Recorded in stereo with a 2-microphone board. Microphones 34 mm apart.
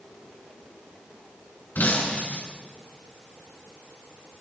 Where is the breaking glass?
75° left (ahead or behind), 7 m.